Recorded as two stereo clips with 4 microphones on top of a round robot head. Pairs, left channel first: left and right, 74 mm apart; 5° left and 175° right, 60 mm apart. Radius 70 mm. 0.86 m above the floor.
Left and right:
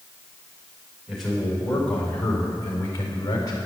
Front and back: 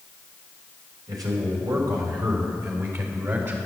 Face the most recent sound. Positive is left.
turn(degrees=140)